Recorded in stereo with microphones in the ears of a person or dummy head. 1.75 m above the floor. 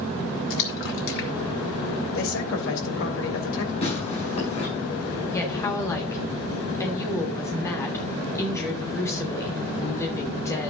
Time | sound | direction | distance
0.5 | a splash | 60° left (ahead or behind) | 2.5 m
2.1 | a man speaking | 70° left (ahead or behind) | 3 m
3.8 | tearing paper | 35° left (ahead or behind) | 6.5 m
5.3 | a woman speaking | 20° left (ahead or behind) | 3 m